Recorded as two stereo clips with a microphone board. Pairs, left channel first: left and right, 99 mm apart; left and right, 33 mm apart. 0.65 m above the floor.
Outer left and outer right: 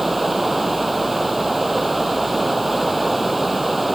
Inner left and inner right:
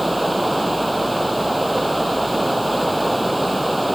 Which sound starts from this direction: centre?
Running water, at 0.0 s.